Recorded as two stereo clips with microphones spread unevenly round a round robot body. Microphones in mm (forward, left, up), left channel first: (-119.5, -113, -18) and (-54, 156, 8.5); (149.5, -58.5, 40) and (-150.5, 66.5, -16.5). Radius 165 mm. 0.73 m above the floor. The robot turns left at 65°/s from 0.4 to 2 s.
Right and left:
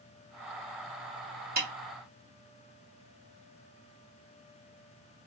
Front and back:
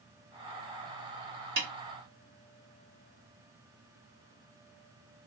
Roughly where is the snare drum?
Behind left.